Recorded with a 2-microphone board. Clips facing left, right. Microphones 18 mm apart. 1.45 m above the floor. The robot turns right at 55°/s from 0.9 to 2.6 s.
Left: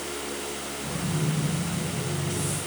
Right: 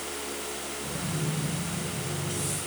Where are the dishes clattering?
No dishes clattering in this recording.